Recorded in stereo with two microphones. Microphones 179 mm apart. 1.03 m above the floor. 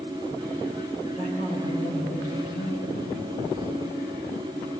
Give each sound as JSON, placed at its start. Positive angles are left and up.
{"t": 1.1, "sound": "a man speaking", "side_deg": 40, "distance_m": 5.0}